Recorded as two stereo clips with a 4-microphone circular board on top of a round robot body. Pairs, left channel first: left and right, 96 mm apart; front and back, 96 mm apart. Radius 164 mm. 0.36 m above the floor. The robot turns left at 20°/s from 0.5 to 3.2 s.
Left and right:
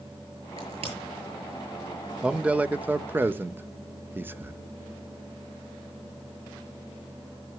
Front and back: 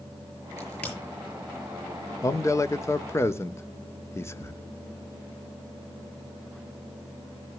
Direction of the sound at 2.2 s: 20° right.